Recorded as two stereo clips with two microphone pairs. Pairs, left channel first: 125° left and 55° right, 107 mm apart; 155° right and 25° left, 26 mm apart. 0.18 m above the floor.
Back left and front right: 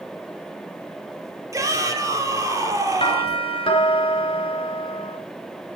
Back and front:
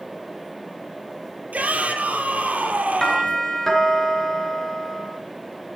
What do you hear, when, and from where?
1.5 s a shout: straight ahead, 5 m
3.0 s a doorbell: 140° left, 4 m